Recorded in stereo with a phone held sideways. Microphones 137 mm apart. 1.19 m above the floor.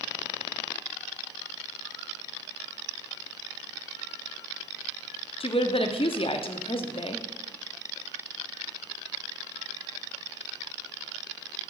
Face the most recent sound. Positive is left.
turn(degrees=40)  # may be behind; listen again after turning